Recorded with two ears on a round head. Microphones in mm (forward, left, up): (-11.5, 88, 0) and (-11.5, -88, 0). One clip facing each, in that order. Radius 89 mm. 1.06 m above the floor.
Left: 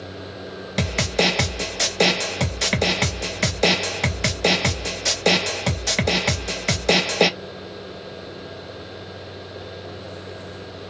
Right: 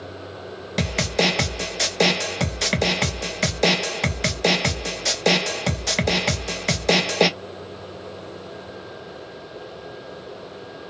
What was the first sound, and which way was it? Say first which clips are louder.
A snare drum: even; centre (ahead or behind).